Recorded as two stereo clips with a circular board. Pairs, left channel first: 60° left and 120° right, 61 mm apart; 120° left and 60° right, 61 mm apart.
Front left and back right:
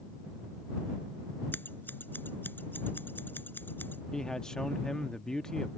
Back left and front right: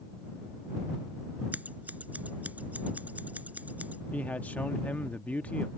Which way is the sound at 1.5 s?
5° left.